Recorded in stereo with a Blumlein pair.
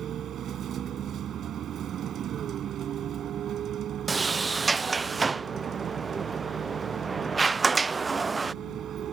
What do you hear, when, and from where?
0.0 s a vehicle: 30° right
4.1 s a sliding door: 15° right